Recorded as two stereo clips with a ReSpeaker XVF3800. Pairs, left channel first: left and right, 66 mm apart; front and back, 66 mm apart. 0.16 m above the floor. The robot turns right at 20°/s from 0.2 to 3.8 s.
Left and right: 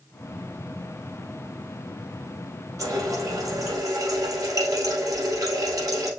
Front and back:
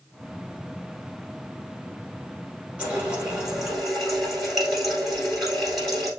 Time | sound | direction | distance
2.8 | a running tap | 115° right | 2.0 m